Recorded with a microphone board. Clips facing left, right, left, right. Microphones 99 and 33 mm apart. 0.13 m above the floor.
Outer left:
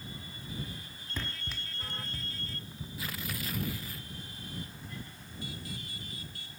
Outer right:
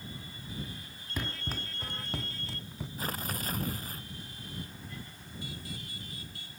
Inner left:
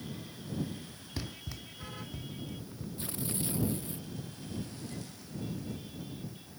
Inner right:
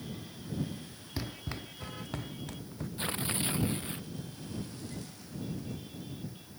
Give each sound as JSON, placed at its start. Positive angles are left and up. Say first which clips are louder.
{"t": 1.2, "sound": "running footsteps", "louder": "outer right 4 dB, inner right 3 dB", "side_deg": -10}
{"t": 3.0, "sound": "tearing paper", "louder": "outer right 3 dB, inner right 4 dB", "side_deg": -40}